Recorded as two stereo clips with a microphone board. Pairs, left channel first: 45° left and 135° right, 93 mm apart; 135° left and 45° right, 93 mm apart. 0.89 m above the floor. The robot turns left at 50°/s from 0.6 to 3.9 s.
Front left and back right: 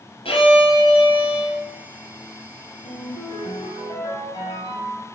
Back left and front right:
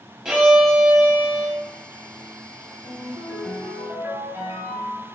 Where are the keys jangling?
I don't hear keys jangling.